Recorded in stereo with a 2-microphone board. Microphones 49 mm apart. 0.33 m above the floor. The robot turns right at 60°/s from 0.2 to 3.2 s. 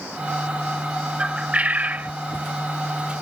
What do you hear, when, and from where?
1.2 s a bird: 150° right; by 2.1 s 95° right